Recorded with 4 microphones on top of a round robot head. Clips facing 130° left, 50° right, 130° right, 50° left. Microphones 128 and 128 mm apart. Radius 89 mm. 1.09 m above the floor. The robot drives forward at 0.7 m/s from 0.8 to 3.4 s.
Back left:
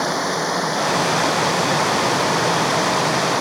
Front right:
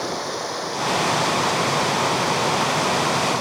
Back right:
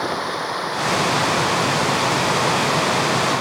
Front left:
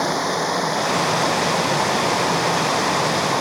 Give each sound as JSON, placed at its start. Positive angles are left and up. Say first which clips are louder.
{"t": 0.0, "sound": "running water", "louder": "back left 5 dB, front left 3 dB", "azimuth_deg": 100}